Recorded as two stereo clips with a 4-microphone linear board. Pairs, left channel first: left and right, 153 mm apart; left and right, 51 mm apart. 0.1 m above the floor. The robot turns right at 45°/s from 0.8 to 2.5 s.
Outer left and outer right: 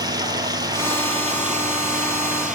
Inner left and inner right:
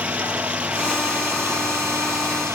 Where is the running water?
150° right, 1.9 m; by 2.5 s 75° right, 1.9 m.